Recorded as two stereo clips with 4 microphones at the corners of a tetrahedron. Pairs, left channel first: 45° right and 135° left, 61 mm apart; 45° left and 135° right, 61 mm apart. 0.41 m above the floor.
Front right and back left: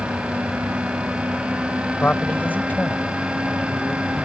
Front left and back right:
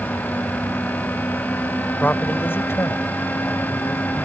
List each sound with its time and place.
2.0 s a man speaking: 10° right; by 4.2 s 15° left